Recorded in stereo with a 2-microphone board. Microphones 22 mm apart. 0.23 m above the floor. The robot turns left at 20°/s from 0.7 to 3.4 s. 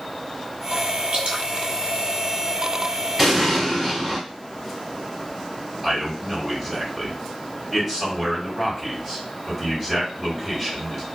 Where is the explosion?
5° right (ahead or behind), 1.3 m.